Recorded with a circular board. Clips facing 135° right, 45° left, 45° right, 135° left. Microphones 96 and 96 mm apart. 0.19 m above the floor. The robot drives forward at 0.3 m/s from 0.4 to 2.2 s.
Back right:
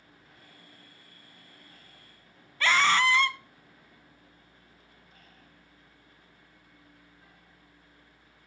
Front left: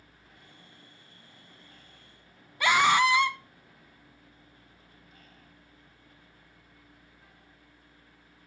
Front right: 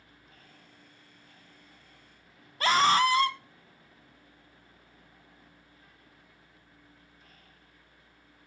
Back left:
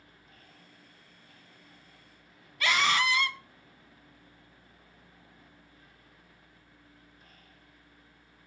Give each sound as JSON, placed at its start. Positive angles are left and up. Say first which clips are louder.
{"t": 2.6, "sound": "a scream", "louder": "front left 2 dB, front right 5 dB", "azimuth_deg": -20, "distance_m": 1.3}